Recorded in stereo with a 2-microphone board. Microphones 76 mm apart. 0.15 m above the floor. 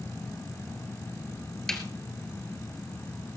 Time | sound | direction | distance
1.7 | a snare drum | 5° left (ahead or behind) | 2 m